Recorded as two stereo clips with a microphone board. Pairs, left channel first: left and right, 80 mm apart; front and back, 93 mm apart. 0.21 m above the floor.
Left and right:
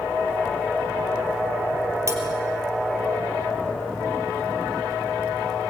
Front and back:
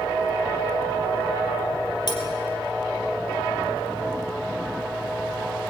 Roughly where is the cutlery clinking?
Ahead right.